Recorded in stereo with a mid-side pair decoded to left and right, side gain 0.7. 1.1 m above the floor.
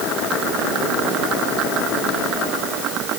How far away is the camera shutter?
I don't hear a camera shutter.